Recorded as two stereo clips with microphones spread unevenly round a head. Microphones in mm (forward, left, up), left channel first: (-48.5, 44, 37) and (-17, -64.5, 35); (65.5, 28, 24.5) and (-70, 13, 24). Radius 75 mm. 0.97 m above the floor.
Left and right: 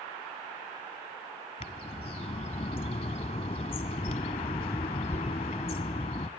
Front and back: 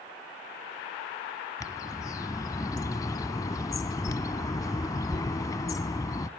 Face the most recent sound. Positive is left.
turn(degrees=65)